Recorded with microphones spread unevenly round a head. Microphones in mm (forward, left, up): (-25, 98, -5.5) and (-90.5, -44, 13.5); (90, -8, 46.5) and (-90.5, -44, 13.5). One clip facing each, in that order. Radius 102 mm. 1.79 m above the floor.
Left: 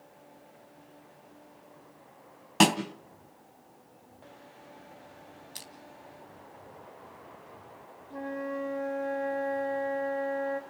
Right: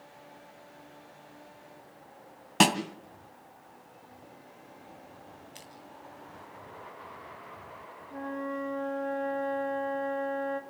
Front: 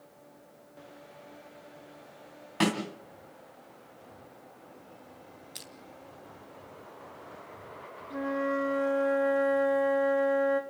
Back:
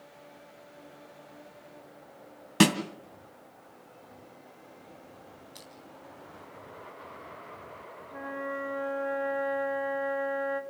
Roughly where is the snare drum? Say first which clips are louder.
Left 1 dB, back 5 dB; behind.